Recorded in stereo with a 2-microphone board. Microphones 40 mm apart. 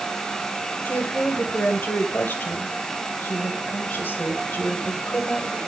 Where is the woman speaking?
55° left (ahead or behind), 1.8 m.